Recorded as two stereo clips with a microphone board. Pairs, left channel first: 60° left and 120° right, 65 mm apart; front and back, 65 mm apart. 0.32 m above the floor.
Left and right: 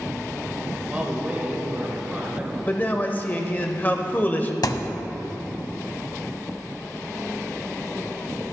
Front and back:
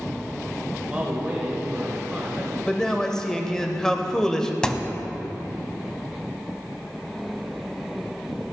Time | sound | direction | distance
0.9 | a man speaking | 150° right | 1.5 m
2.7 | a man speaking | 70° left | 0.9 m
4.6 | a thud | 75° left | 0.6 m